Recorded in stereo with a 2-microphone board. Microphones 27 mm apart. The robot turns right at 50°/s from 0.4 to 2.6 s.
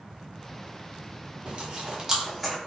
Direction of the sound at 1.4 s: 45° right (ahead or behind).